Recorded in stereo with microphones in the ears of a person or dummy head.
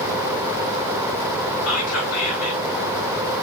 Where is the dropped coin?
I don't hear a dropped coin.